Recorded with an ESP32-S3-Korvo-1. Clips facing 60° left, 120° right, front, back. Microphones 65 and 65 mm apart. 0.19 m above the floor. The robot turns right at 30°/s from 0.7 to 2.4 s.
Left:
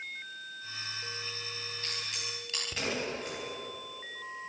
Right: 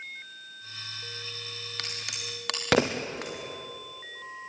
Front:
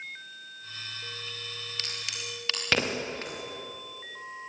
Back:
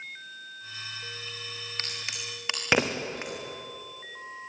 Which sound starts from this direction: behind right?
A crack, at 1.8 s.